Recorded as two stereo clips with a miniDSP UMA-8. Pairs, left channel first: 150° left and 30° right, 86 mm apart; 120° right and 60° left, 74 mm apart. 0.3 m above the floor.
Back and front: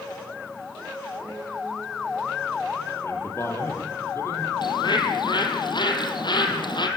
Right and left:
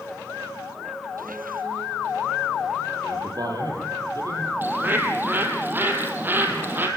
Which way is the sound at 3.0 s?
90° left.